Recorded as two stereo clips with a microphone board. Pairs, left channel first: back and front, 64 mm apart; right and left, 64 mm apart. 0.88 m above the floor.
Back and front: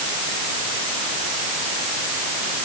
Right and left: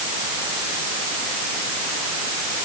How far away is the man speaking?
No man speaking in this recording.